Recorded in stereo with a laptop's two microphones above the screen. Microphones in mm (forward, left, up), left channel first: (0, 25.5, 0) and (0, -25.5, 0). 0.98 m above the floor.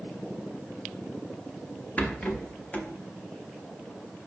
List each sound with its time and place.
2.0 s a rattle: 30° left (ahead or behind), 0.5 m